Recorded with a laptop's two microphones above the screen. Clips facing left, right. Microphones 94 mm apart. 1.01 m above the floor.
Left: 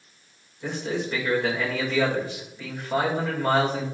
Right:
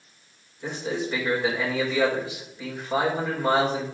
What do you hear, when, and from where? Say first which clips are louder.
0.6 s a man speaking: even; 5° right (ahead or behind), 4.5 m